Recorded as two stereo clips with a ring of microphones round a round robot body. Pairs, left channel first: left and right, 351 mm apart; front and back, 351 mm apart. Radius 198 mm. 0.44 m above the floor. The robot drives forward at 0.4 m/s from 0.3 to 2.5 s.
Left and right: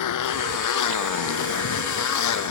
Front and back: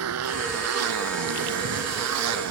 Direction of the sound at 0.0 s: 125° left.